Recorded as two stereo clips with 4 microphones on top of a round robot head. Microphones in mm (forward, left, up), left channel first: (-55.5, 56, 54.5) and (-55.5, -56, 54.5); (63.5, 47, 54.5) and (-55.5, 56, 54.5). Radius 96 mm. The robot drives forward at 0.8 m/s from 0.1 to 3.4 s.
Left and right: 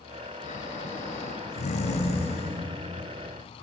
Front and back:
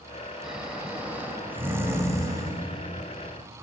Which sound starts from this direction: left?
Snoring, at 0.4 s.